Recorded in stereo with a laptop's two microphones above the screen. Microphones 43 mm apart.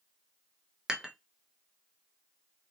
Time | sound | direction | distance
0.9 | dishes clattering | 15° right (ahead or behind) | 0.5 m